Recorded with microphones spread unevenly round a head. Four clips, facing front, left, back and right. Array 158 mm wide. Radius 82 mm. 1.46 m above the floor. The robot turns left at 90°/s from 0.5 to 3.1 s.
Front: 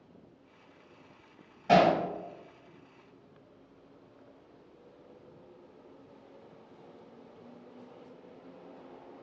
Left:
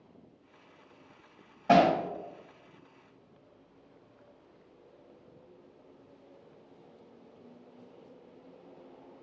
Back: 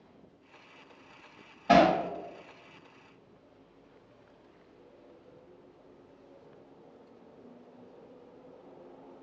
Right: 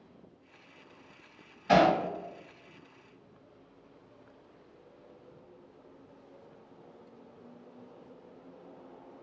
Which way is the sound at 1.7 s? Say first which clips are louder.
Left 1 dB, back 1 dB; 105° left.